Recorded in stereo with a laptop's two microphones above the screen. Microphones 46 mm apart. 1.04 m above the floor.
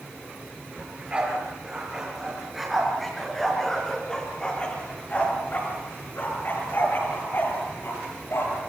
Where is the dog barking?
25° right (ahead or behind), 6.5 m; by 8.6 s 65° left (ahead or behind), 7.5 m.